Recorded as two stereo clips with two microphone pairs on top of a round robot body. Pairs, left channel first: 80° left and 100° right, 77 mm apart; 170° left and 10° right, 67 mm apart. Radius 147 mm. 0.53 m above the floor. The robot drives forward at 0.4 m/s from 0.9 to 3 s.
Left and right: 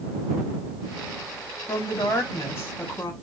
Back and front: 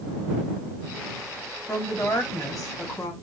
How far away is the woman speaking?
About 1.4 m.